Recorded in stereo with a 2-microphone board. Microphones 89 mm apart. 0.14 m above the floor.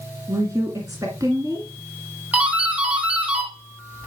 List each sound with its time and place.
0.3 s a woman speaking: 40° right (ahead or behind), 1.6 m
2.3 s a doorbell: 15° right (ahead or behind), 2.5 m